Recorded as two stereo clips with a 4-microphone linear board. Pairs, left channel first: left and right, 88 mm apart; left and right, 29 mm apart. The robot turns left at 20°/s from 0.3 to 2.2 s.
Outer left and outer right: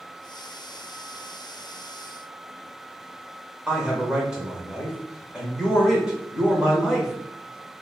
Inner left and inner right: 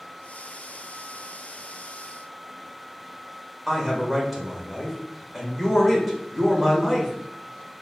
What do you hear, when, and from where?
3.7 s a man speaking: 10° right (ahead or behind), 1.0 m